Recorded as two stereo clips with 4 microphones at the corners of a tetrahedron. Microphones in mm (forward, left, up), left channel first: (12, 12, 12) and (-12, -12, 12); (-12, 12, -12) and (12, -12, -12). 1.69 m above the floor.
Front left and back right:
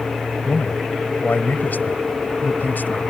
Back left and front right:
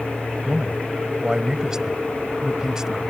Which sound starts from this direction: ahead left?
A man speaking, at 0.5 s.